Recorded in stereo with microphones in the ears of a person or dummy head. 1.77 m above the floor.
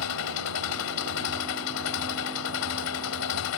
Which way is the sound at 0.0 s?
75° left (ahead or behind).